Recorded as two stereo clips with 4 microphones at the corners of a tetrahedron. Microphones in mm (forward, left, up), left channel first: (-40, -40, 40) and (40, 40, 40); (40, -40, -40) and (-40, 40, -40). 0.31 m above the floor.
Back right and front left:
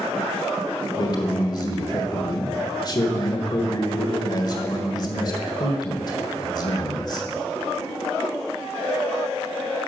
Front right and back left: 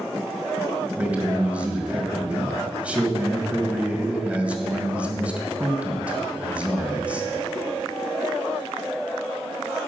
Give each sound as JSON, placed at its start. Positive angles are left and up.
{"t": 1.0, "sound": "a man speaking", "azimuth_deg": -155, "distance_m": 1.6}